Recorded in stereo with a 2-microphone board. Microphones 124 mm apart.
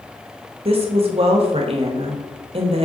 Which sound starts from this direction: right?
A woman speaking, at 0.7 s.